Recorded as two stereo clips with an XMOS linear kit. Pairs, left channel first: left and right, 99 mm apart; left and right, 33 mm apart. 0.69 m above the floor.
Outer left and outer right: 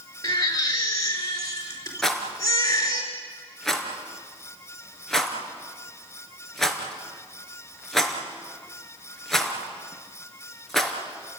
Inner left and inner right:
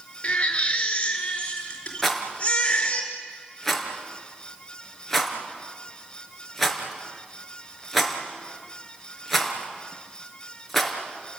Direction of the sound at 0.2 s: 35° left (ahead or behind).